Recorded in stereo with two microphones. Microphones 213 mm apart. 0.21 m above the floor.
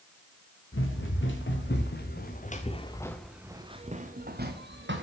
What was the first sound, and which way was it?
Running footsteps, 65° left (ahead or behind).